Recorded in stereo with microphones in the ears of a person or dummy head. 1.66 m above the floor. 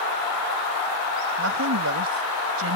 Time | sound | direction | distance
1.4 | a woman speaking | 85° right | ?